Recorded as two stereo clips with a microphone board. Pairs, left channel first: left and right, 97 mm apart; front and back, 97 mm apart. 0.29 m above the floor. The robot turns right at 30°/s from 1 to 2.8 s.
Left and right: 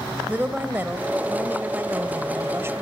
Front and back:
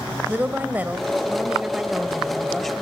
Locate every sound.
0.3 s a woman speaking: 135° right, 1.3 m; by 2.8 s 80° right, 1.3 m